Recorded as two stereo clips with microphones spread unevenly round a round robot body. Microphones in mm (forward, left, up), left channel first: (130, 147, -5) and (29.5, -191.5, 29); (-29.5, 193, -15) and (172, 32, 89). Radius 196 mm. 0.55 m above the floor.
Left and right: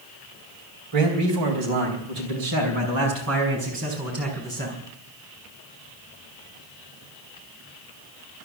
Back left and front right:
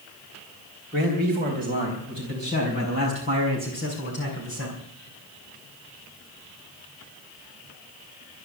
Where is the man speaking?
140° right, 3 m; by 4.8 s 175° right, 5 m.